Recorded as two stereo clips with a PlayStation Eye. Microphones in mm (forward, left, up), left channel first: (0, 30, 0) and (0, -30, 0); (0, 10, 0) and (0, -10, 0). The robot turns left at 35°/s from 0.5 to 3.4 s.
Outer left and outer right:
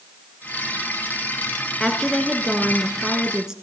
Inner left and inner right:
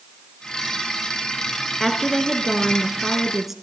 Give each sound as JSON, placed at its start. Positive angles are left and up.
{"t": 1.8, "sound": "a woman speaking", "side_deg": 10, "distance_m": 1.2}